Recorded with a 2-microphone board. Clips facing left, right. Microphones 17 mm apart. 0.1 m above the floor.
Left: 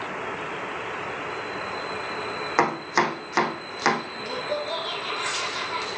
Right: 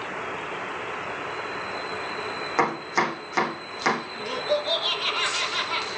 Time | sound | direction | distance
2.6 | chopping | 25° left (ahead or behind) | 5 m
4.2 | laughter | 30° right (ahead or behind) | 2.0 m